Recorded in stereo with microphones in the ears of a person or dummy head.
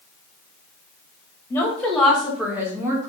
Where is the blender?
I don't hear a blender.